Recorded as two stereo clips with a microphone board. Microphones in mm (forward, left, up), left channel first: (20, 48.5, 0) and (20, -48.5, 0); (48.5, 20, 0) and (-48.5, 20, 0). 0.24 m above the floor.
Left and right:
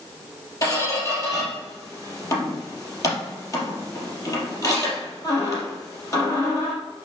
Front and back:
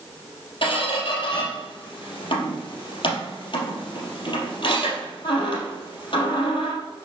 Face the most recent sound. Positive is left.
turn(degrees=35)